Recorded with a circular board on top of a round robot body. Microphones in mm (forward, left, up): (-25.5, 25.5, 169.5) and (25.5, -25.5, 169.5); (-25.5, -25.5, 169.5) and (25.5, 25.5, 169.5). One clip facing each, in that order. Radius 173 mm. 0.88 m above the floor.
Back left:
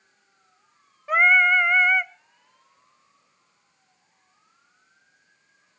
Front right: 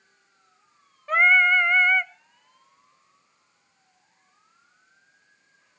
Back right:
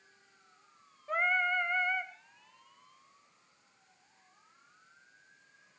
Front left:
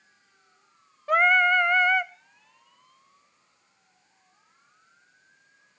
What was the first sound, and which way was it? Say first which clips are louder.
Singing: back left 1 dB, front left 11 dB; 50° left.